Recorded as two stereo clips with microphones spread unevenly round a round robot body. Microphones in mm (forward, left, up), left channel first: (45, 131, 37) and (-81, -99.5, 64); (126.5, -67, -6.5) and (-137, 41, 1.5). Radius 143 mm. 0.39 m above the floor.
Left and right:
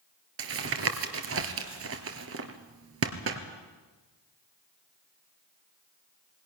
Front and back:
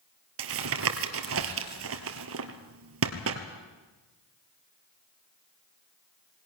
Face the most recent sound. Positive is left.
turn(degrees=-160)